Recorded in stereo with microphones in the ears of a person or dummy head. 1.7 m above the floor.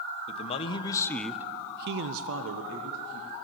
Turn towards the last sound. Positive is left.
turn(degrees=-75)  # may be behind; listen again after turning